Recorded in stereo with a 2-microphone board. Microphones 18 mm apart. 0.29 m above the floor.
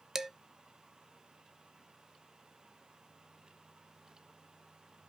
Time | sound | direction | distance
0.1 | dishes clattering | 30° right (ahead or behind) | 0.7 m